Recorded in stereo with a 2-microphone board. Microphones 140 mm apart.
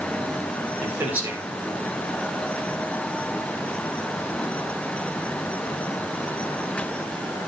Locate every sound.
0.8 s a man speaking: 10° right (ahead or behind), 4.5 m